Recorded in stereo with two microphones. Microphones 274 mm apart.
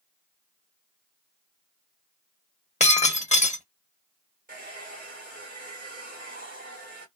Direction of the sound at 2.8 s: 25° left (ahead or behind).